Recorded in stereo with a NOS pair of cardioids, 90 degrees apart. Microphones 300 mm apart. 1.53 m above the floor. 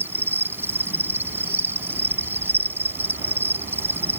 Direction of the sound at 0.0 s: 5° right.